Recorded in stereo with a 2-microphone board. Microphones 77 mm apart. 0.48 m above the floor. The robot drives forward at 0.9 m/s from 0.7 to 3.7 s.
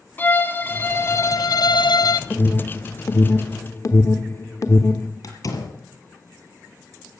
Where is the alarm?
25° left (ahead or behind), 1.6 m; by 5.1 s 40° left (ahead or behind), 1.1 m.